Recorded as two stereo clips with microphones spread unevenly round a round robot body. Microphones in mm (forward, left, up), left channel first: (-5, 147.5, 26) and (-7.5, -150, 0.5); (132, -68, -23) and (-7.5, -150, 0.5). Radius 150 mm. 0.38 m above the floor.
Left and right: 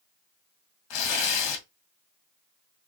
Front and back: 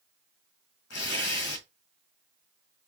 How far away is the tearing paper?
About 2 m.